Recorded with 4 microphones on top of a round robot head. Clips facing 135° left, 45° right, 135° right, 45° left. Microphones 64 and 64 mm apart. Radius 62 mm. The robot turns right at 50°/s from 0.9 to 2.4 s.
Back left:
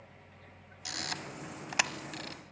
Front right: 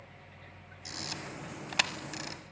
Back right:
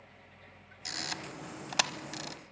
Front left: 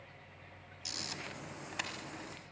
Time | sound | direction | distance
0.8 | a camera shutter | 175° left | 1.1 m